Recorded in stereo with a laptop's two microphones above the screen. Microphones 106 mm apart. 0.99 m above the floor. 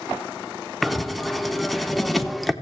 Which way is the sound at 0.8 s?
Centre (ahead or behind).